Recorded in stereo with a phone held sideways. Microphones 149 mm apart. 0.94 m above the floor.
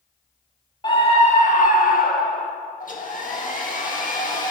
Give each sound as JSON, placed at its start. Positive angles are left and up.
{"t": 0.8, "sound": "a scream", "side_deg": 30, "distance_m": 1.7}
{"t": 2.8, "sound": "a hair dryer", "side_deg": 60, "distance_m": 1.7}